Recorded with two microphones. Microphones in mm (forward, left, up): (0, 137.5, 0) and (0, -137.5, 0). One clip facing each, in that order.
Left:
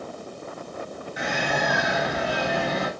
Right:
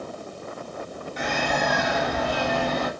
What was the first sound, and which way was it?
A bird, 10° left (ahead or behind).